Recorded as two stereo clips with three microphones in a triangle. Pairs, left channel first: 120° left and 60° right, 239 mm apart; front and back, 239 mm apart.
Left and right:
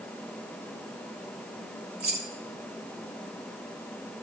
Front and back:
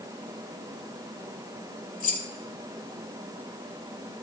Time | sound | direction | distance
2.0 | keys jangling | 40° right | 0.9 m